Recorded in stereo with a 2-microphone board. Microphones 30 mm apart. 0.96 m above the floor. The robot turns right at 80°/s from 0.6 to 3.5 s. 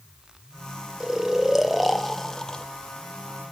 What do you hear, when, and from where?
1.0 s snoring: 25° right (ahead or behind), 0.6 m; by 2.6 s 25° left (ahead or behind), 0.6 m